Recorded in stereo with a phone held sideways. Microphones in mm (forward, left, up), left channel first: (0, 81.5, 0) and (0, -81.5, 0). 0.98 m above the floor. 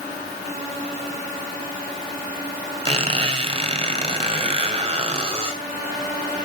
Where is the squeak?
40° right (ahead or behind), 1.8 m.